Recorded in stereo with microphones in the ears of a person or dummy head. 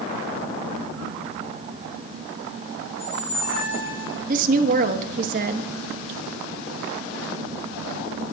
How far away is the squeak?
About 6 m.